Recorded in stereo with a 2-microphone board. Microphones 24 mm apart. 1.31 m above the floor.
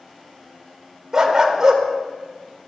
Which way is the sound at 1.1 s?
25° right (ahead or behind).